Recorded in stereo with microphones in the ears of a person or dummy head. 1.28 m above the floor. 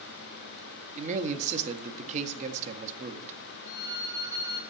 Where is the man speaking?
45° right (ahead or behind), 1.6 m.